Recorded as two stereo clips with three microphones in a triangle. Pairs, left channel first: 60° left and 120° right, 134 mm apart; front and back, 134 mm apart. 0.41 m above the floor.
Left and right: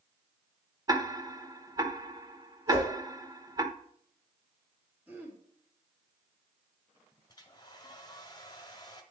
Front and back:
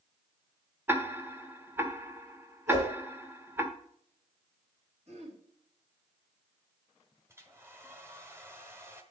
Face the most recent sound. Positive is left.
turn(degrees=110)